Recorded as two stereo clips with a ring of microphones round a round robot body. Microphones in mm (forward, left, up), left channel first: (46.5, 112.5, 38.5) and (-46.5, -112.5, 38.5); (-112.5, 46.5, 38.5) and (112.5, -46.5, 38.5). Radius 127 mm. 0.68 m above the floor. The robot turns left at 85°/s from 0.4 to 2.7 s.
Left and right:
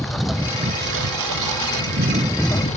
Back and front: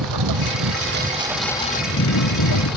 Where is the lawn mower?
20° right; by 2.8 s 130° left.